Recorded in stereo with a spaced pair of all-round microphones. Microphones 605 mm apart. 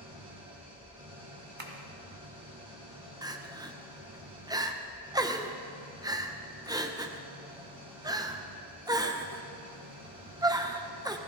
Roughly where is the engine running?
Centre.